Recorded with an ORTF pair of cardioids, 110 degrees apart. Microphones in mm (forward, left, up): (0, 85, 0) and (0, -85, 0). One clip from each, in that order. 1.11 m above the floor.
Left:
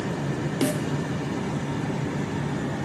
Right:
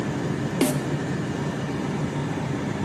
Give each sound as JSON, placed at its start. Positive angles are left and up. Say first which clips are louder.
{"t": 0.6, "sound": "a snare drum", "louder": "right 2 dB", "azimuth_deg": -10, "distance_m": 0.6}